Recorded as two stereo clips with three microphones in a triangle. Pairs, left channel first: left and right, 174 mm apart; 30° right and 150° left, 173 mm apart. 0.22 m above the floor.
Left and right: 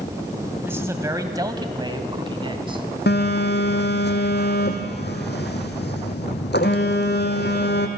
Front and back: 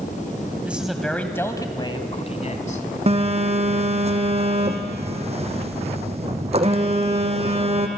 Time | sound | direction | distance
0.6 | a man speaking | 145° right | 1.4 m
3.1 | a phone buzzing | 100° left | 1.7 m